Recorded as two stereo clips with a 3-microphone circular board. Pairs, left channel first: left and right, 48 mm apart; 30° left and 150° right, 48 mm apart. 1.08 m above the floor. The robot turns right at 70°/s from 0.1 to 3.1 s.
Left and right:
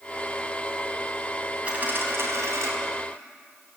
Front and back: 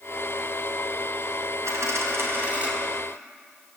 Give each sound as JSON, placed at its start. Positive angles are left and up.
{"t": 1.6, "sound": "a dropped coin", "azimuth_deg": -155, "distance_m": 4.5}